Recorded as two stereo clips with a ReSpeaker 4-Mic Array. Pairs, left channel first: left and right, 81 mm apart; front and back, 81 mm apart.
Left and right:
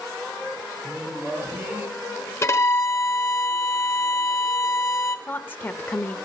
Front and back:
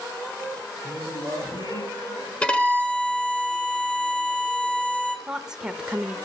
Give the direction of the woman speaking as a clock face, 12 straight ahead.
8 o'clock.